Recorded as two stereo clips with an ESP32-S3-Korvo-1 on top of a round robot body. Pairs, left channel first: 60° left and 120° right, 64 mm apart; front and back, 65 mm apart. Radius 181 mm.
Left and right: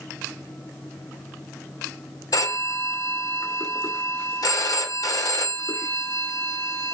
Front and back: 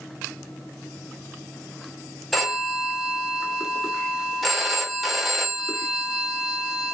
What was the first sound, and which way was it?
A phone ringing, 90° left.